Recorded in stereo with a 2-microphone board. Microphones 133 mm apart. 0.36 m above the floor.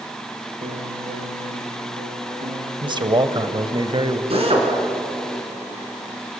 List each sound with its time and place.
0.6 s a piano: 85° right, 3.5 m
2.8 s a man speaking: 35° right (ahead or behind), 1.5 m
4.3 s a drill: 50° right (ahead or behind), 4.5 m